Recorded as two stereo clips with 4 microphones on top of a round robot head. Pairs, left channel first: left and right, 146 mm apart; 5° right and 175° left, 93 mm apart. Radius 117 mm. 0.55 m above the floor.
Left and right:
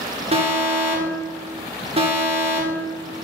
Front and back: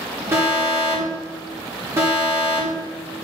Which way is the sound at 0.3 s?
125° right.